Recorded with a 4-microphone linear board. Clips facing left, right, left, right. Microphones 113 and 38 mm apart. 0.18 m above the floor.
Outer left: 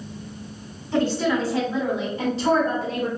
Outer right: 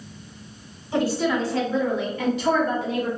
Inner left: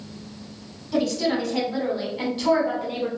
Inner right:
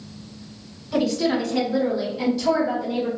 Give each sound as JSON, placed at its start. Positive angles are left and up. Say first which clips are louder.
{"t": 0.9, "sound": "a woman speaking", "louder": "outer left 1 dB, inner right 2 dB", "side_deg": -15, "distance_m": 1.1}